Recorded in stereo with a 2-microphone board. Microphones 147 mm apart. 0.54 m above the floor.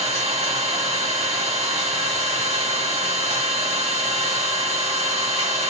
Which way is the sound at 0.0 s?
45° right (ahead or behind).